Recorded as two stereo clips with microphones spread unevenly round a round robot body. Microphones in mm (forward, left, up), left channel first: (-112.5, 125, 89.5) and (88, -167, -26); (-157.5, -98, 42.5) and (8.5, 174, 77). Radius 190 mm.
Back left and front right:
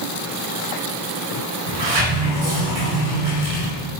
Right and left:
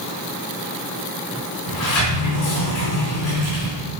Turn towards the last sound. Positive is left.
turn(degrees=-80)